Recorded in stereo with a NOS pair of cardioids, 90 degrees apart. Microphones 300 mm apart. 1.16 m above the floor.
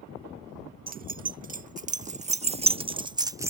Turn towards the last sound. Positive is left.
turn(degrees=-10)